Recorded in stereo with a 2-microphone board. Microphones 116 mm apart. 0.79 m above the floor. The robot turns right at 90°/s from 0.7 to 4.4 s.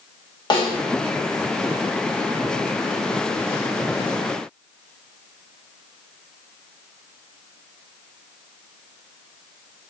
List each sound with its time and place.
0.5 s a snare drum: 40° left (ahead or behind), 1.3 m; by 0.8 s 35° left (ahead or behind), 1.3 m